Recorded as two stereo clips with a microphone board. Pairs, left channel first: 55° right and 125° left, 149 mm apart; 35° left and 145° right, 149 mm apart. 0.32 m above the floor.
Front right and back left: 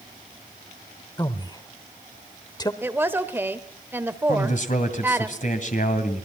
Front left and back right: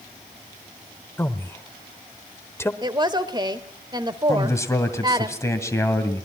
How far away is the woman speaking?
About 1.2 m.